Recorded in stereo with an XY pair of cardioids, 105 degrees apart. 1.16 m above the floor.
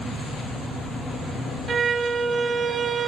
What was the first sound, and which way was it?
A violin, 40° right.